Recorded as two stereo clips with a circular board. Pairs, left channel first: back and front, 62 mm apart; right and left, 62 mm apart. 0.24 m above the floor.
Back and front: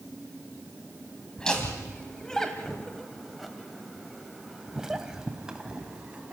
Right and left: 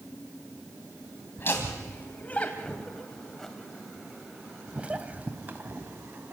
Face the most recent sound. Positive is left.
turn(degrees=65)